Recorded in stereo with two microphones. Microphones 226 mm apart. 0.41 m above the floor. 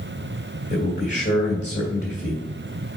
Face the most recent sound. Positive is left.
turn(degrees=50)  # may be behind; listen again after turning